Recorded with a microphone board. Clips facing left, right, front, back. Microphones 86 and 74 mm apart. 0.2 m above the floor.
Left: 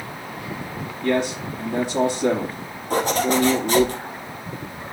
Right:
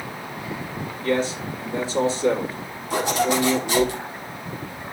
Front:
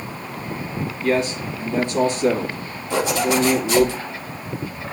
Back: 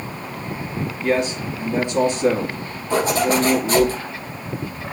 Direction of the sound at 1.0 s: 110° left.